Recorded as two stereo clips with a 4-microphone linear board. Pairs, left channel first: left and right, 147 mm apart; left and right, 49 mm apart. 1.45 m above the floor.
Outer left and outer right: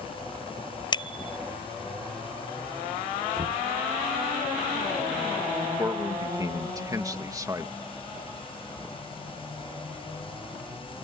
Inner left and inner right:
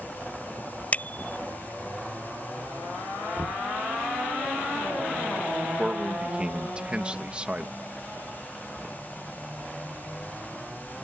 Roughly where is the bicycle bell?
Left.